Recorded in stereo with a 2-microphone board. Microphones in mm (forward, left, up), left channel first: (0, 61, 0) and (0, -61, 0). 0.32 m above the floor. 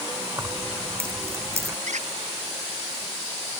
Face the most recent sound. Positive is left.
turn(degrees=-80)